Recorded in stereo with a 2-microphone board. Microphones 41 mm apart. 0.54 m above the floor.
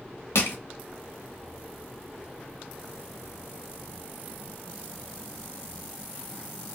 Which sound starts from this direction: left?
Crushing, at 0.3 s.